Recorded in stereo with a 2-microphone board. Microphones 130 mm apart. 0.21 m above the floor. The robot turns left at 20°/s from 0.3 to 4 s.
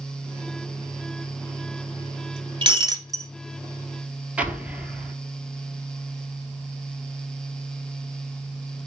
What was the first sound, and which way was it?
Breaking glass, 35° right (ahead or behind).